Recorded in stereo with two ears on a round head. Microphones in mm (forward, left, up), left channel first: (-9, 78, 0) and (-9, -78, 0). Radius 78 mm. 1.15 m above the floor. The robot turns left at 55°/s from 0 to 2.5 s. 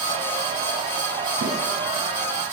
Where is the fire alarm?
I don't hear a fire alarm.